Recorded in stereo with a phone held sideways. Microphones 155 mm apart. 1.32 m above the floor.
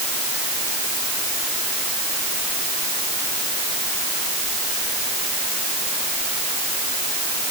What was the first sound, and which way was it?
Only background noise.